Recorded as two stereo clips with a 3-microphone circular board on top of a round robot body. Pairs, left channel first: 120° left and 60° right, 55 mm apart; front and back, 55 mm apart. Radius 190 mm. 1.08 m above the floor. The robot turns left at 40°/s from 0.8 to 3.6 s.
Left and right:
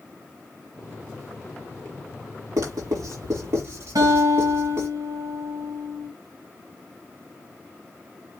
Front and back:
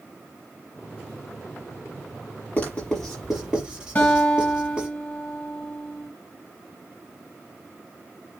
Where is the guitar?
65° right, 2.5 m.